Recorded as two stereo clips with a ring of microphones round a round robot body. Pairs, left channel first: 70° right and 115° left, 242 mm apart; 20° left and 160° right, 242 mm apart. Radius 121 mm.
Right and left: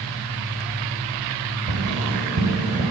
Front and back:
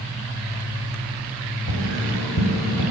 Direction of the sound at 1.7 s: 50° left.